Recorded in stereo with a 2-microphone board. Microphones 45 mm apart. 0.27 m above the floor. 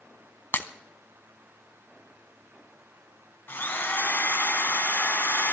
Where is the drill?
55° left (ahead or behind), 2.5 m.